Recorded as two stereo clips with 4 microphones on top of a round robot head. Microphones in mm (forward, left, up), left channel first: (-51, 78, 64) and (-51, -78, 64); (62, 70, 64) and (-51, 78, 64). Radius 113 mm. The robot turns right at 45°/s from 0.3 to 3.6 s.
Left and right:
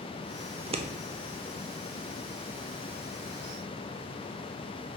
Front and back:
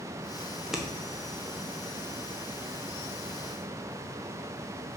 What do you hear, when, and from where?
0.5 s scissors: 110° right, 1.1 m; by 0.9 s 95° right, 1.1 m